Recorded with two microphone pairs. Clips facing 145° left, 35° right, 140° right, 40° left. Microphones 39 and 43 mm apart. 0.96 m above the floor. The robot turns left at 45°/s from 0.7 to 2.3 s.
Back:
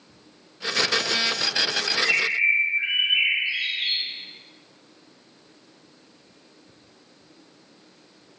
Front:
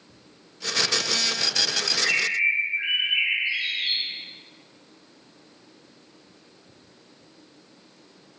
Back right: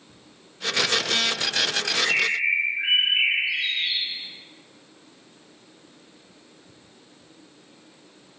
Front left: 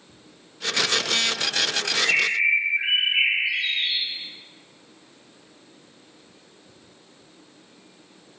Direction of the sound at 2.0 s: 65° left.